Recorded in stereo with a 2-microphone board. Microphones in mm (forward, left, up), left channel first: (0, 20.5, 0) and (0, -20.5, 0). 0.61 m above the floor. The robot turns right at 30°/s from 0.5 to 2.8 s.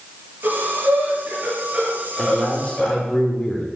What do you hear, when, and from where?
0.4 s breathing: 60° right (ahead or behind), 7 m; by 3.0 s 5° left (ahead or behind), 7 m
2.2 s a man speaking: 5° left (ahead or behind), 1.9 m; by 3.7 s 20° left (ahead or behind), 1.9 m